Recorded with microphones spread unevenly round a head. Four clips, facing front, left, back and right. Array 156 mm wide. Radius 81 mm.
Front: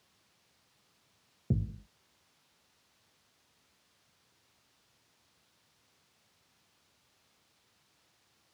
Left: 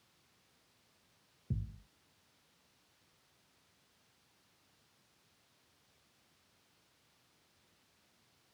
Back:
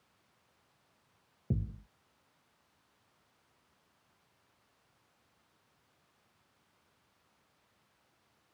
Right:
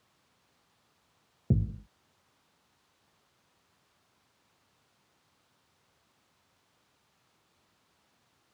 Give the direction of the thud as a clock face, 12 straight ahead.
3 o'clock.